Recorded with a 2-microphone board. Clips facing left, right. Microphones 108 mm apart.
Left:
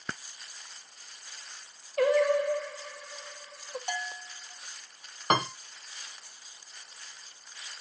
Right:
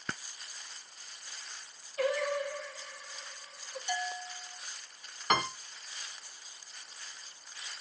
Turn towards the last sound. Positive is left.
turn(degrees=40)  # may be behind; listen again after turning